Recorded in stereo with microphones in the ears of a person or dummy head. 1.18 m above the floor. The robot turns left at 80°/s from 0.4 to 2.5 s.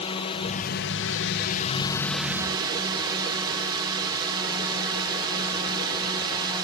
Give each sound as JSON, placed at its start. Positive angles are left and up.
{"t": 0.0, "sound": "a drone", "azimuth_deg": 145}